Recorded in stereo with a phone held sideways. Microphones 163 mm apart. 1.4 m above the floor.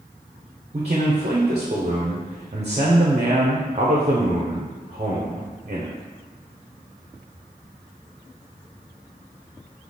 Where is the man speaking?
45° right (ahead or behind), 0.7 m.